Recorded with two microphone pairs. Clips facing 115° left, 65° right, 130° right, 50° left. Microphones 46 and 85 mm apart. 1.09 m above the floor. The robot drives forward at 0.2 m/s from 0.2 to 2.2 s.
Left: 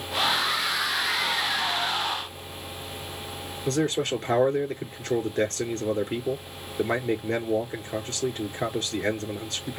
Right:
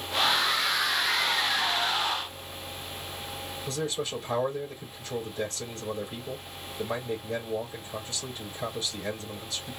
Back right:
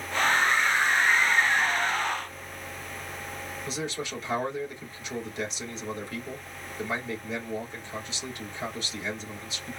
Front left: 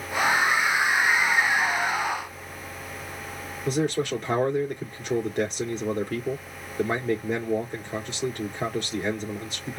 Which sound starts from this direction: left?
A man speaking, at 3.7 s.